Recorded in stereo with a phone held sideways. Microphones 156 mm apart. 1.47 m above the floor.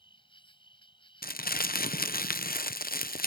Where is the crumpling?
75° left (ahead or behind).